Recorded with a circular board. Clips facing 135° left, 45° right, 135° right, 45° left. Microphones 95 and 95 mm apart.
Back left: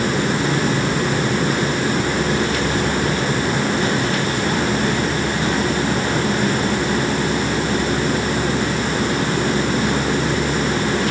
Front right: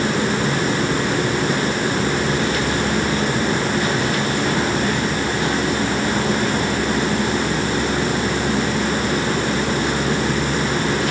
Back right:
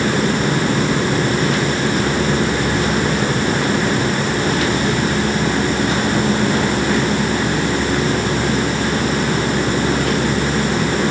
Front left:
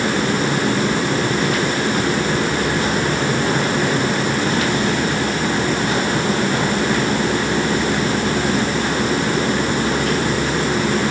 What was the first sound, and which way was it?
Only background noise.